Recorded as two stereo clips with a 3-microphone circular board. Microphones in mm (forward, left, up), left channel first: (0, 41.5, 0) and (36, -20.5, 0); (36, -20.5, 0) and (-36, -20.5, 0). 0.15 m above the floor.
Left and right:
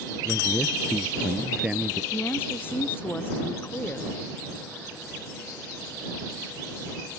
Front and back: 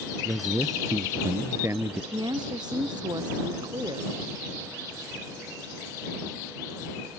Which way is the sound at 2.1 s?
Straight behind.